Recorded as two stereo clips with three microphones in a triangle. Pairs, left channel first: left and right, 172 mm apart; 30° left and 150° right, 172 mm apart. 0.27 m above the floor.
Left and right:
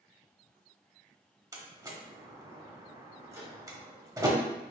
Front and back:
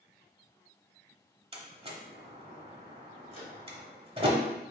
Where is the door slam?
145° right, 1.0 m.